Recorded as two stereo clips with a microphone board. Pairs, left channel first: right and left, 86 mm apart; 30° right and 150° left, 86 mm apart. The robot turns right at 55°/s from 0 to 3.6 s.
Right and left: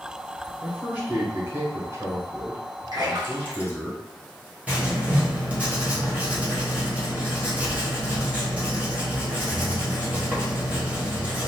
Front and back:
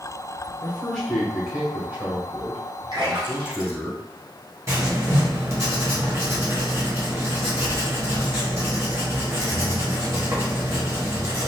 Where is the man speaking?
25° left, 1.3 m; by 3.9 s 170° right, 1.3 m.